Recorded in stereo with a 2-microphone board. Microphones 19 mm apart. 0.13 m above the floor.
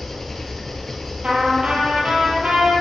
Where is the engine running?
25° left (ahead or behind), 1.2 m.